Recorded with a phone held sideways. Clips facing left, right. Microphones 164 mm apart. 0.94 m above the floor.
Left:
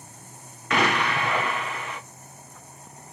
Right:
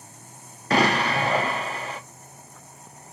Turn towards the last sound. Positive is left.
turn(degrees=-35)  # may be behind; listen again after turning